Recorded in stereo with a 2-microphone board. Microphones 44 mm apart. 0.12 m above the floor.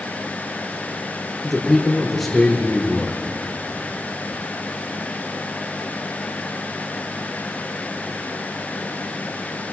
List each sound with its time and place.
1.4 s a man speaking: 5° left (ahead or behind), 5 m